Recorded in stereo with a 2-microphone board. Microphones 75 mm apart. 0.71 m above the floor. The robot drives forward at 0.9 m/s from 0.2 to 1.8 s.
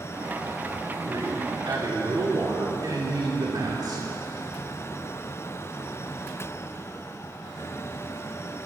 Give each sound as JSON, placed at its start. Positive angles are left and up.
{"t": 1.1, "sound": "a man speaking", "side_deg": -55, "distance_m": 2.5}